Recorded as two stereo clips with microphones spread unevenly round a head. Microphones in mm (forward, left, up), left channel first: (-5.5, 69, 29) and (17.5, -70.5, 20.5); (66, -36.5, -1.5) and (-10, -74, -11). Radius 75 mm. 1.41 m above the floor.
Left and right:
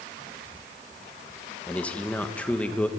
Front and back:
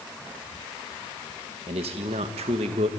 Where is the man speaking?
Straight behind, 1.5 m.